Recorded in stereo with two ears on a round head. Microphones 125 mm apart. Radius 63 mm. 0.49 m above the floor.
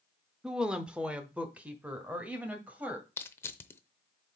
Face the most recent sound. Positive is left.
turn(degrees=20)  # may be behind; listen again after turning